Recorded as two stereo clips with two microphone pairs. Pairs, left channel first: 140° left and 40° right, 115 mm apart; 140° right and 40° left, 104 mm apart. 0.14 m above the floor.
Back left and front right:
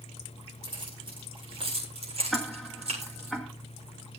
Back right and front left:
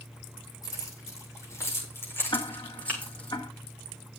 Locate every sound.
0.6 s keys jangling: 85° right, 7.5 m; by 3.3 s 60° right, 7.5 m
2.3 s ticking: 135° right, 2 m